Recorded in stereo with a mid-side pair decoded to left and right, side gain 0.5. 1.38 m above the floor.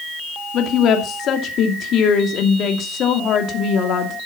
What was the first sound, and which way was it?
A woman speaking, 65° left.